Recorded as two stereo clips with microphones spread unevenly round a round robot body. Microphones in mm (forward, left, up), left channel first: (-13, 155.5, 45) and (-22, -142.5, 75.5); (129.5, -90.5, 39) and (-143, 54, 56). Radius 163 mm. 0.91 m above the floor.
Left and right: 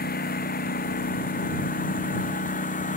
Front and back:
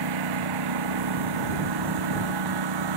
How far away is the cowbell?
I don't hear a cowbell.